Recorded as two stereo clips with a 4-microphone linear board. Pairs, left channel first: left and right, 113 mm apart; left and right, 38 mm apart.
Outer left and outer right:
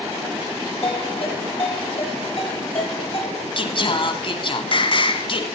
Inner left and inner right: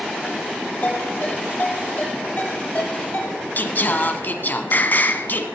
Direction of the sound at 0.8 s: 55° left (ahead or behind).